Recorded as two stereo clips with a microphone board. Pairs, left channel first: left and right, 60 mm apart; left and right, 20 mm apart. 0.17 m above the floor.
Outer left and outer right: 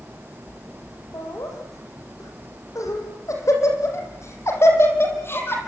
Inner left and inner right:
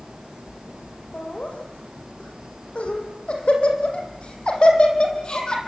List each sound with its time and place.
1.1 s laughter: 70° left (ahead or behind), 10 m; by 5.6 s 40° left (ahead or behind), 6.5 m